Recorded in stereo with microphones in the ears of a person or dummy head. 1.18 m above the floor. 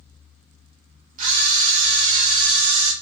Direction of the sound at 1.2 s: 45° right (ahead or behind).